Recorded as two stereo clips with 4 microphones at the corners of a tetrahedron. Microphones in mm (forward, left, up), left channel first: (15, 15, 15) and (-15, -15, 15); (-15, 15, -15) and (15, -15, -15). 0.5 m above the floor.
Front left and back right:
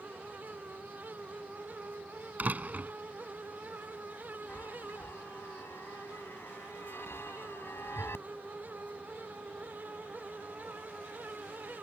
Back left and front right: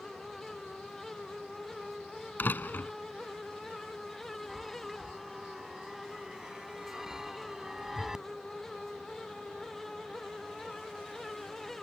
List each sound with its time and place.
2.4 s a door slam: 175° left
4.5 s a chime: 30° left